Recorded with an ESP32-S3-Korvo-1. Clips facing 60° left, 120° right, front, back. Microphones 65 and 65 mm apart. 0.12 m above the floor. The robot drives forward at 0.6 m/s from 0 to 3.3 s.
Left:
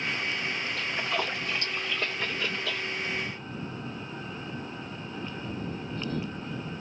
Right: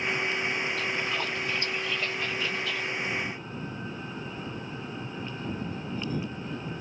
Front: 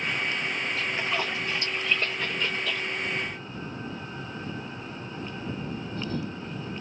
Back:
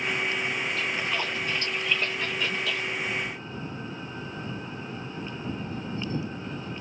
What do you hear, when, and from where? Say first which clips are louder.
0.8 s a splash: even, even; 70° left, 2.5 m; by 2.9 s 105° left, 2 m